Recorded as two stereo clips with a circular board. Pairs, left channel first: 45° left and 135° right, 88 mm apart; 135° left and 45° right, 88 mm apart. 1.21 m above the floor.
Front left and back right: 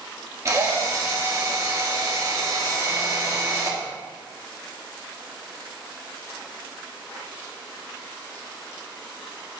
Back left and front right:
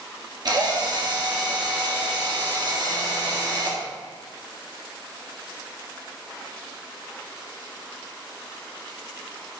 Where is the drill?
80° right, 1.5 m.